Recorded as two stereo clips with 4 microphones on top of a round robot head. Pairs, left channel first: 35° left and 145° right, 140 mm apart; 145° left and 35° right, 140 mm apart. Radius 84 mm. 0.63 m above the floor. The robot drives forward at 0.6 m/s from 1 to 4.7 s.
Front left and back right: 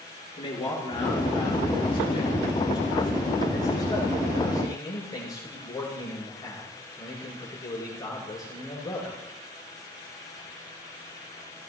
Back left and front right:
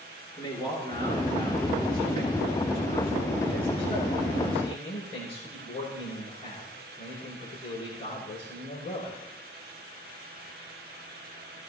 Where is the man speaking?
85° left, 8 m; by 9.2 s 100° left, 8.5 m.